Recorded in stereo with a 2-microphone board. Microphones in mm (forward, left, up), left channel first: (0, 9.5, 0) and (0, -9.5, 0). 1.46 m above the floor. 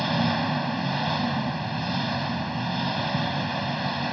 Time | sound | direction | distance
0.0 | an engine running | 5° left (ahead or behind) | ?